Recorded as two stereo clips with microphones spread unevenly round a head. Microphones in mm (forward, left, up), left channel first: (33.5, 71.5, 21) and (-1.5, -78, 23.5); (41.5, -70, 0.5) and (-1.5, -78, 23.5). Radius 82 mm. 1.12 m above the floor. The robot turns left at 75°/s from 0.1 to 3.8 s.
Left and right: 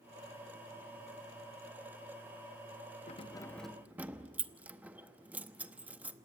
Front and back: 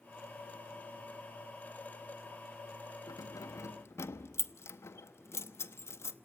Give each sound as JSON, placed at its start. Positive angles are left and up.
{"t": 3.1, "sound": "keys jangling", "azimuth_deg": 30, "distance_m": 0.8}